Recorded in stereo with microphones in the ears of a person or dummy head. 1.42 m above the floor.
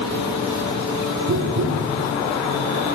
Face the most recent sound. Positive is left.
turn(degrees=-40)  # may be behind; listen again after turning